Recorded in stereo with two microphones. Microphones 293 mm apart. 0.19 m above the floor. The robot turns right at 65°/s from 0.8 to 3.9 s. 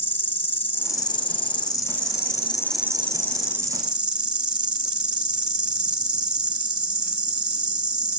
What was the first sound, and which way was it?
An insect, 55° left.